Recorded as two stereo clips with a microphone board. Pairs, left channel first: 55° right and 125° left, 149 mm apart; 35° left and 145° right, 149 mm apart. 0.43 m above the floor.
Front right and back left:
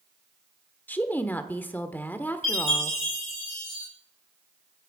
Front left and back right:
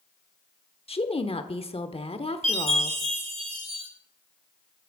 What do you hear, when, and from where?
0.9 s a woman speaking: 15° left, 1.0 m
2.4 s a chime: 95° right, 7 m